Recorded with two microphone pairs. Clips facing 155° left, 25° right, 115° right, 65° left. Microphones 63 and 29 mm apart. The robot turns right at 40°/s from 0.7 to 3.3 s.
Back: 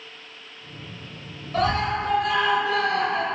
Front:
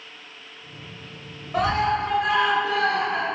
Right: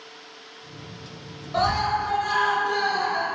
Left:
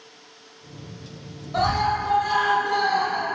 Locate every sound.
1.5 s a scream: 45° right, 1.0 m; by 3.2 s 25° left, 1.0 m